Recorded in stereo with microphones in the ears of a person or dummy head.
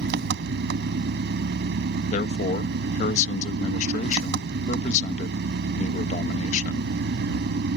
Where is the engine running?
60° right (ahead or behind).